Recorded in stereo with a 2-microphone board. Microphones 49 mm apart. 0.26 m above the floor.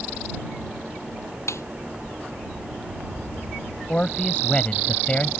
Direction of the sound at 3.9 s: 25° left (ahead or behind).